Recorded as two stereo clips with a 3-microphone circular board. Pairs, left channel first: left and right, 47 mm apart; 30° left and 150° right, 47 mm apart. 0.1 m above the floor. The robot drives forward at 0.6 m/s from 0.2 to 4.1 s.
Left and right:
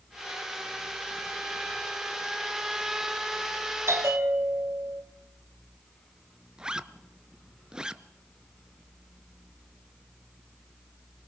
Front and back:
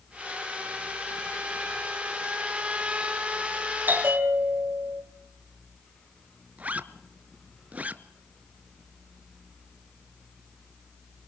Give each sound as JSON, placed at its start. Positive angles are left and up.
{"t": 3.9, "sound": "a bell", "azimuth_deg": -100, "distance_m": 2.0}
{"t": 6.6, "sound": "a zipper", "azimuth_deg": -150, "distance_m": 0.8}